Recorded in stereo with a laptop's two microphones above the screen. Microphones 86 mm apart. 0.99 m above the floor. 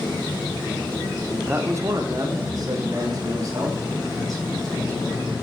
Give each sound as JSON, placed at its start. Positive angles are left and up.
{"t": 1.4, "sound": "a man speaking", "side_deg": -20, "distance_m": 0.8}